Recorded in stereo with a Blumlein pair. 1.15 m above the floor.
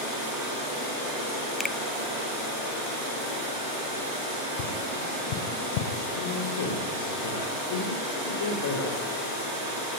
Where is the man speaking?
60° left, 4.5 m.